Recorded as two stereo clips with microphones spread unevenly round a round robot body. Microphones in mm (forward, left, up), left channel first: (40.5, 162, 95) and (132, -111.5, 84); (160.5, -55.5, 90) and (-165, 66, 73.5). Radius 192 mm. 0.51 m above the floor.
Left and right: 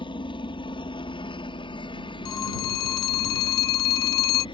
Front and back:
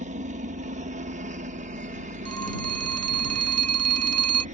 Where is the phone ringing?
110° left.